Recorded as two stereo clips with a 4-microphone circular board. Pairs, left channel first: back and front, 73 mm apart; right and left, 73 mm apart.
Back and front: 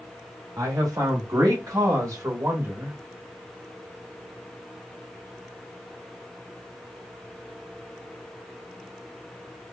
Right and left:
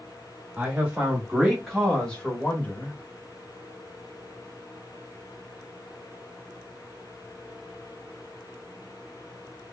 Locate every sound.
0.6 s a man speaking: 15° left, 1.9 m; by 3.0 s 45° right, 1.3 m